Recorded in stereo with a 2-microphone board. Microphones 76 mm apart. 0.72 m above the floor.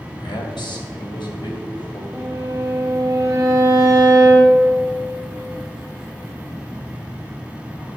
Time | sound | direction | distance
0.2 | a man speaking | 80° left | 3 m
2.1 | a violin | 50° right (ahead or behind) | 4 m